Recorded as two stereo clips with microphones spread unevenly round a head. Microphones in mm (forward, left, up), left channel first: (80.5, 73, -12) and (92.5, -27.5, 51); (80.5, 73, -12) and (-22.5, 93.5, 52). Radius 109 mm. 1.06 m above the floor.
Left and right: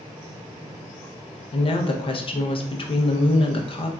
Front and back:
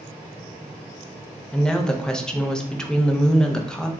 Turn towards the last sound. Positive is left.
turn(degrees=70)